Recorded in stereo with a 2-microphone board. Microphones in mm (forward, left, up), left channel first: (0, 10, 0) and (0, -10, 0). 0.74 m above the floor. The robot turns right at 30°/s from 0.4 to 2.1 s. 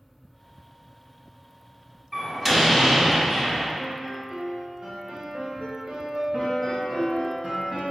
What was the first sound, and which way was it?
A door slam, 25° right (ahead or behind).